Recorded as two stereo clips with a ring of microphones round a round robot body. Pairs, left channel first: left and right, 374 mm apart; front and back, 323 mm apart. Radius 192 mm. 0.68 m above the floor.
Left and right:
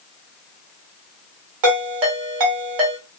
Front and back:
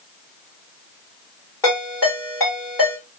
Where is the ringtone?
80° right, 1.3 m.